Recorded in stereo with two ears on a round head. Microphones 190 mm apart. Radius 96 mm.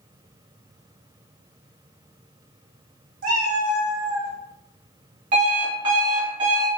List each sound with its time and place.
3.2 s a cat meowing: 40° right (ahead or behind), 0.8 m; by 4.3 s 15° right (ahead or behind), 0.6 m
5.3 s an alarm clock: 35° right (ahead or behind), 1.2 m